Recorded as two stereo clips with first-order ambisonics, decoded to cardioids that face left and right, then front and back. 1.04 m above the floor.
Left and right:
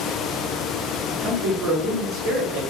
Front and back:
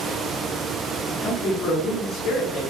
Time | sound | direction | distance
1.1 | a man speaking | 50° right | 2.5 m